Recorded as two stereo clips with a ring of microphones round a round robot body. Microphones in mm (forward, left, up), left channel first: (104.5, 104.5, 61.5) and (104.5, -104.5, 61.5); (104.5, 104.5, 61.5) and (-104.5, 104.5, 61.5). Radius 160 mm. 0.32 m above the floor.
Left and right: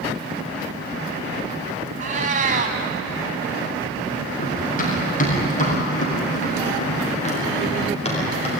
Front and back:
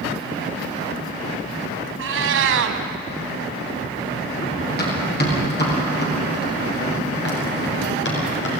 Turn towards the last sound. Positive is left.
turn(degrees=30)